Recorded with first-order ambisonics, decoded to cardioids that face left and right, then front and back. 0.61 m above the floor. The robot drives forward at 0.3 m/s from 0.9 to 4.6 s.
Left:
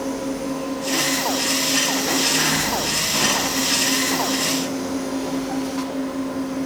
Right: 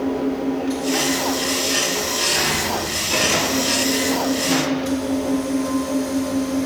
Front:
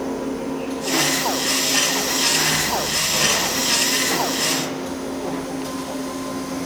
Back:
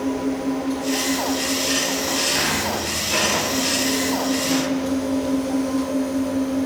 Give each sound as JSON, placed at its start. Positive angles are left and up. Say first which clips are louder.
{"t": 0.0, "sound": "an engine running", "louder": "right 3 dB, back 2 dB", "azimuth_deg": -130, "distance_m": 6.5}